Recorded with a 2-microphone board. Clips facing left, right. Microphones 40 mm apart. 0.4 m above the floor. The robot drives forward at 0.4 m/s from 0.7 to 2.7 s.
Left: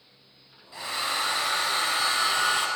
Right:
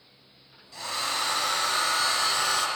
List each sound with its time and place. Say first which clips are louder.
0.7 s a hair dryer: left 1 dB; 15° left (ahead or behind), 2.5 m; by 2.7 s 25° left (ahead or behind), 1.6 m